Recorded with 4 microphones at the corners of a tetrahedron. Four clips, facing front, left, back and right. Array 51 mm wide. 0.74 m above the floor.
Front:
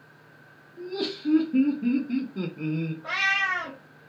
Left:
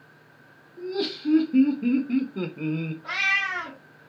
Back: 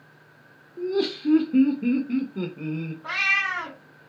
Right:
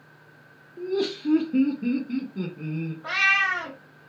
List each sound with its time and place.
0.8 s laughter: 145° right, 0.9 m; by 2.9 s 100° left, 0.8 m
3.0 s a cat meowing: 110° right, 1.4 m